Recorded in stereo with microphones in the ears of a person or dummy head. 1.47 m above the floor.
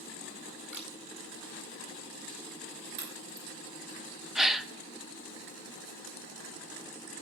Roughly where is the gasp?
Centre.